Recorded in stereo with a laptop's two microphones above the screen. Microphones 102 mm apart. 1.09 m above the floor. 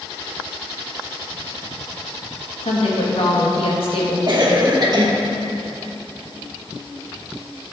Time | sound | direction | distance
2.6 | a woman speaking | 65° left (ahead or behind) | 1.9 m
4.3 | a cough | 40° right (ahead or behind) | 1.1 m